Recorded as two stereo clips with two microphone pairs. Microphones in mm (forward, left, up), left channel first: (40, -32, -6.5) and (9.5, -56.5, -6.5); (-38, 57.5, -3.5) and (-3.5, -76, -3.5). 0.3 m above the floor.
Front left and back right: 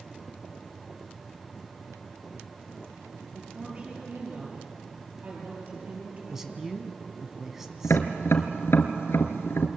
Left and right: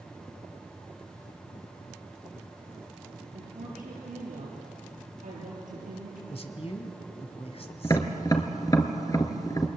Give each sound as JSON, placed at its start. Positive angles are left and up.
{"t": 3.3, "sound": "a woman speaking", "azimuth_deg": -90, "distance_m": 7.5}
{"t": 6.3, "sound": "a man speaking", "azimuth_deg": 140, "distance_m": 2.5}
{"t": 7.8, "sound": "tapping", "azimuth_deg": 40, "distance_m": 2.0}